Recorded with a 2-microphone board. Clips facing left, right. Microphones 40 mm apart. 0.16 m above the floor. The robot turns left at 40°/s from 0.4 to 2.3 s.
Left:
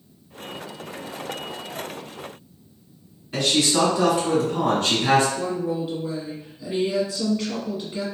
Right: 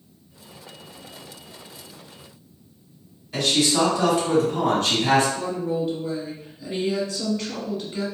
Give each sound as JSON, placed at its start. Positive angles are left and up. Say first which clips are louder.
{"t": 3.3, "sound": "a man speaking", "louder": "even", "side_deg": 30, "distance_m": 1.9}
{"t": 5.3, "sound": "a woman speaking", "louder": "even", "side_deg": 10, "distance_m": 1.3}